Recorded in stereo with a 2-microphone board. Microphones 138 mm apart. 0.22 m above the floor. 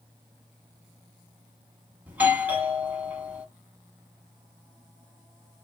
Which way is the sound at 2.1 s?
10° right (ahead or behind).